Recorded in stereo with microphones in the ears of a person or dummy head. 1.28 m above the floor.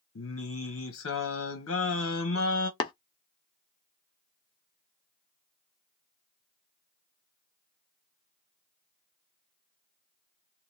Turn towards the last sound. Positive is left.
turn(degrees=30)  # may be behind; listen again after turning